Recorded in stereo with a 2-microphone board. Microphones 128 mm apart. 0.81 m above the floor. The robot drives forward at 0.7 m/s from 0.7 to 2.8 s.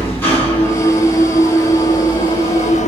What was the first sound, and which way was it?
An engine running, 15° left (ahead or behind).